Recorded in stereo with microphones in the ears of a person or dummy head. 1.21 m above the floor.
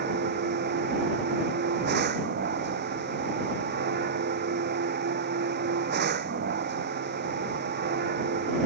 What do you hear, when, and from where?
0.0 s a machine running: 50° right (ahead or behind)